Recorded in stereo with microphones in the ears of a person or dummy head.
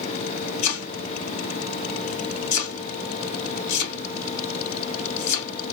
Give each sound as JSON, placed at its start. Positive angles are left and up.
{"t": 0.6, "sound": "chopping", "side_deg": 70, "distance_m": 3.0}